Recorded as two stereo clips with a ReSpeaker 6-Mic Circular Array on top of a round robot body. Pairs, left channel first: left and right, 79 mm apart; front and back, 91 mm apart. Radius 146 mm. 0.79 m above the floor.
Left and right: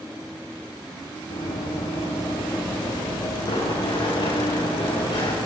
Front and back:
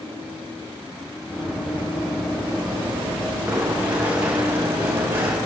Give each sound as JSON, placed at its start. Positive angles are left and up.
{"t": 1.3, "sound": "running footsteps", "azimuth_deg": 95, "distance_m": 9.0}